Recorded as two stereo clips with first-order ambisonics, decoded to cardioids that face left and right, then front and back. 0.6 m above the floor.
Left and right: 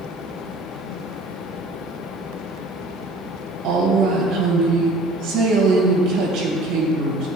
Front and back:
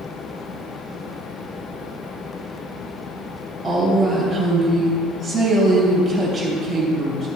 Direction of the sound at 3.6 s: 100° right.